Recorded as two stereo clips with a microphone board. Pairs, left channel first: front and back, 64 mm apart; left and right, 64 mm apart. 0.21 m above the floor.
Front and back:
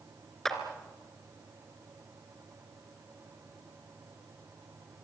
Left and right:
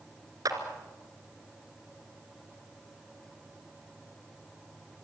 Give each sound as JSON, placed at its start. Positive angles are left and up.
{"t": 0.5, "sound": "a clap", "azimuth_deg": -85, "distance_m": 3.0}